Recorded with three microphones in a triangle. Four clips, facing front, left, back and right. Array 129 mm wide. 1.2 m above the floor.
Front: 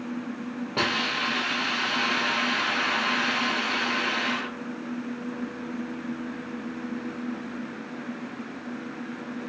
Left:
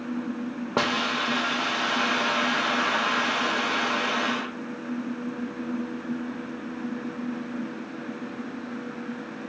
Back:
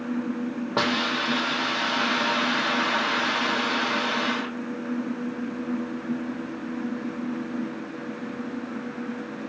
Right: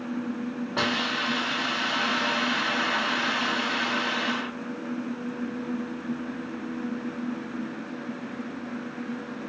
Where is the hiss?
115° left, 1.0 m.